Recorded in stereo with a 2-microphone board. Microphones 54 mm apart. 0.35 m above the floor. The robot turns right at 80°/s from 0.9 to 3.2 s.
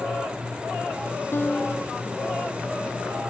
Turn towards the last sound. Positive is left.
turn(degrees=-75)